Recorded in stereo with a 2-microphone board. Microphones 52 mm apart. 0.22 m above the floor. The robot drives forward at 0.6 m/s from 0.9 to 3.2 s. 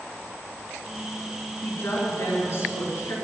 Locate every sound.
1.6 s a woman speaking: 55° left (ahead or behind), 3 m; by 3.1 s 45° left (ahead or behind), 3.5 m